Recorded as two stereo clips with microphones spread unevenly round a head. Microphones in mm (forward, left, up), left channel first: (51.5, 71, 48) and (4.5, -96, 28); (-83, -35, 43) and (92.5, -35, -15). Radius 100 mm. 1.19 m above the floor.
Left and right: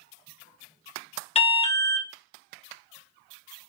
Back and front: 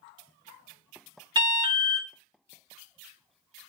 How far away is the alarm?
About 1.1 m.